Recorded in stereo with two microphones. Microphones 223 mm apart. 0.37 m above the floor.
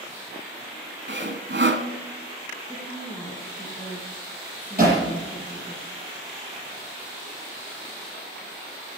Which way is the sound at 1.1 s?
55° right (ahead or behind).